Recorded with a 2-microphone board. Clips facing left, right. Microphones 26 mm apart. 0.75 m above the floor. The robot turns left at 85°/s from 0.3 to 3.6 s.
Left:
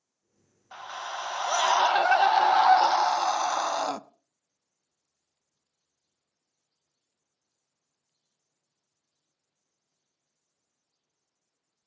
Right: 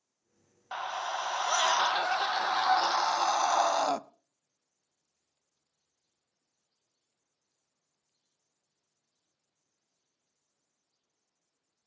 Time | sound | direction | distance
0.7 | a scream | 130° right | 0.6 m